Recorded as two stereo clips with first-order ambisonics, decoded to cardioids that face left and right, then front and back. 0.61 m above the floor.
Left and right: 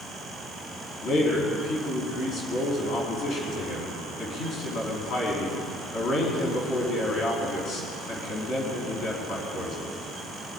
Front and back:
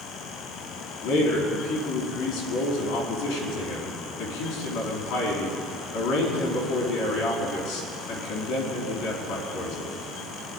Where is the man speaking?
35° left, 4.5 m.